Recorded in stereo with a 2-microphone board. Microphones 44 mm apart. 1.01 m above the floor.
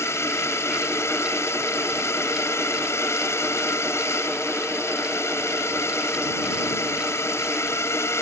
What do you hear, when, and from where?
0.0 s a drone: 80° left